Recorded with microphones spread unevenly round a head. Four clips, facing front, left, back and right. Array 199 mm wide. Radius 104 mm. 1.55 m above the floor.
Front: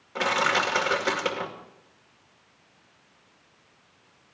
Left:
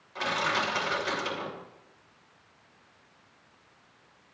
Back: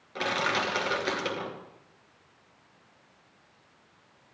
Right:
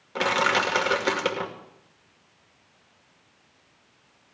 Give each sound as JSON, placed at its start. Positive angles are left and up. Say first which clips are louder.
{"t": 0.1, "sound": "crushing", "louder": "right 6 dB, front 4 dB", "azimuth_deg": -80, "distance_m": 2.5}